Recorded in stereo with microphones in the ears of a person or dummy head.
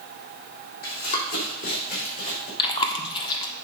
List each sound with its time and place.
0.8 s running footsteps: 55° left (ahead or behind), 4 m
2.6 s chewing: 30° left (ahead or behind), 1.3 m